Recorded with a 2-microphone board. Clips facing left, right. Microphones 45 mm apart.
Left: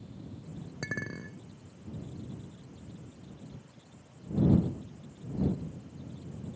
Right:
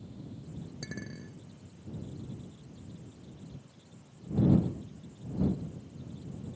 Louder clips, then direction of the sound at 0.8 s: Left 8 dB; 50° left (ahead or behind).